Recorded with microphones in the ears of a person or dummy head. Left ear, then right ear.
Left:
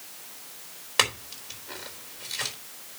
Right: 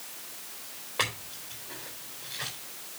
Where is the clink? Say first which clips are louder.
Left 6 dB; 80° left, 3.5 m.